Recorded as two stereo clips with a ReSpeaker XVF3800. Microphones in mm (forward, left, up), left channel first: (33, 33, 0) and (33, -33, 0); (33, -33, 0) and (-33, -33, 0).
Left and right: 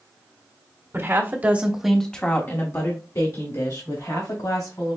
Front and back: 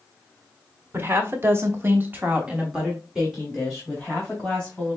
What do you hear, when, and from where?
0.9 s a woman speaking: 130° right, 1.4 m; by 5.0 s 80° left, 3 m